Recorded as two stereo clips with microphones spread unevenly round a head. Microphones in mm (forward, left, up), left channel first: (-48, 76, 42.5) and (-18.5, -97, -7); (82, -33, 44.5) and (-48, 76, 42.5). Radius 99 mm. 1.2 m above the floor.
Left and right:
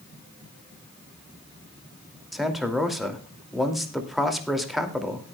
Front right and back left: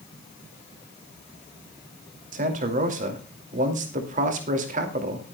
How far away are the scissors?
No scissors in this recording.